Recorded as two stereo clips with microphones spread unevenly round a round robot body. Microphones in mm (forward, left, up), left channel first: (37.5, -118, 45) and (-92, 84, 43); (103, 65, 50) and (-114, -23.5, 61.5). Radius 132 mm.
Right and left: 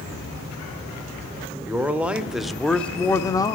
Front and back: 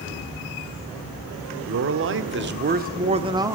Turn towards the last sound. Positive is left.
turn(degrees=-90)